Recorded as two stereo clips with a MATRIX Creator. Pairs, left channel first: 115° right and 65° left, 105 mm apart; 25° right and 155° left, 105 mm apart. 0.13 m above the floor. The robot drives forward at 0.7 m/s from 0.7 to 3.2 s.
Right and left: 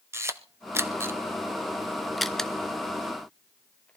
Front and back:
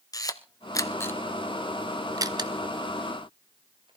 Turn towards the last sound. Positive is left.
turn(degrees=170)